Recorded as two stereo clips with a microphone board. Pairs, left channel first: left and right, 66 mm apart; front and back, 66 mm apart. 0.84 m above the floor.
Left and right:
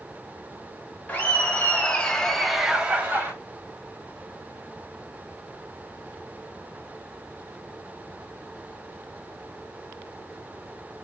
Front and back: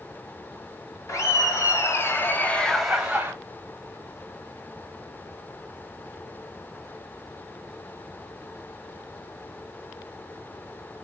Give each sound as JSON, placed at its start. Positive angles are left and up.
{"t": 1.1, "sound": "laughter", "azimuth_deg": 25, "distance_m": 1.2}